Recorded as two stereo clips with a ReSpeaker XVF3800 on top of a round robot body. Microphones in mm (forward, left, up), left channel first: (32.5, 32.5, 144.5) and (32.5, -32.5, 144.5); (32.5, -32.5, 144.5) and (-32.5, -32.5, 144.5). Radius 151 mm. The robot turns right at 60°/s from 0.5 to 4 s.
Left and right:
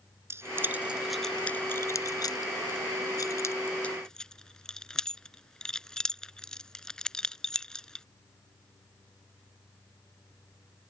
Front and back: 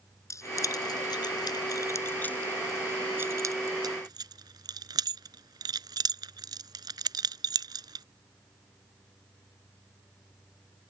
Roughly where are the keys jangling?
Ahead right.